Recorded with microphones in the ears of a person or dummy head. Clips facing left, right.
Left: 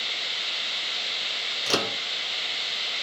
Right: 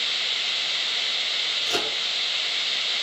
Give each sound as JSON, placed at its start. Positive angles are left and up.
{"t": 1.7, "sound": "a microwave", "side_deg": 70, "distance_m": 0.8}